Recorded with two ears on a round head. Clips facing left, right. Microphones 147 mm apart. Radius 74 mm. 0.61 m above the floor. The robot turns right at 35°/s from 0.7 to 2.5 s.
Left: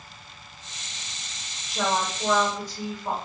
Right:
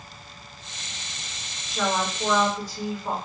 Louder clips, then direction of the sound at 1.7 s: Even; 20° left (ahead or behind).